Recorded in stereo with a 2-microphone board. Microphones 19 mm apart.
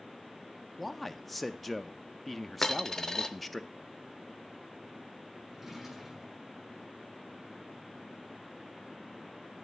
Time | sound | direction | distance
0.8 | a man speaking | 5° left (ahead or behind) | 0.6 m
2.6 | a dropped coin | 25° left (ahead or behind) | 0.8 m
5.5 | a drawer | 20° right (ahead or behind) | 7.5 m